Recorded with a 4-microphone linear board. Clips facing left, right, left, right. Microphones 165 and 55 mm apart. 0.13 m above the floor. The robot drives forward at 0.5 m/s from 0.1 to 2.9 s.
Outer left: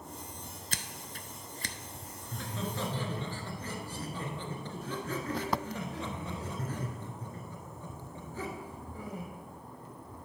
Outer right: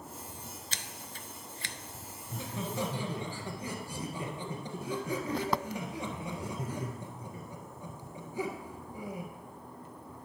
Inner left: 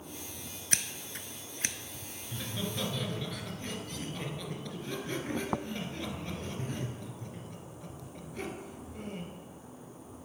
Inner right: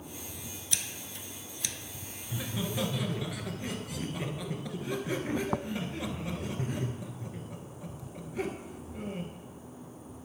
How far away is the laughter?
About 1.3 m.